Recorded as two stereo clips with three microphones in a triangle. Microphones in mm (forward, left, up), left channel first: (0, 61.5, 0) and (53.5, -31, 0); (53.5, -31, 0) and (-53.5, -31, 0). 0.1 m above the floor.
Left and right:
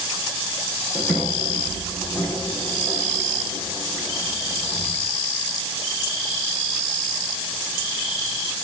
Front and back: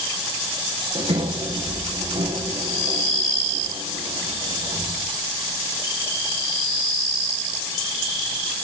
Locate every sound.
0.9 s a sliding door: 160° right, 5 m